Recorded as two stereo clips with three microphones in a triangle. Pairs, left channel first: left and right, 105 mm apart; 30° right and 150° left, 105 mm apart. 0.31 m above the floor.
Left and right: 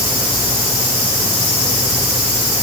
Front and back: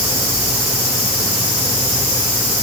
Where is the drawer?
I don't hear a drawer.